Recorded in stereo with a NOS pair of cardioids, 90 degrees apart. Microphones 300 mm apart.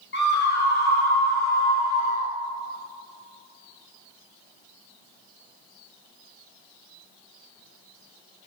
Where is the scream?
35° left, 1.3 m; by 2.3 s 30° left, 4.5 m.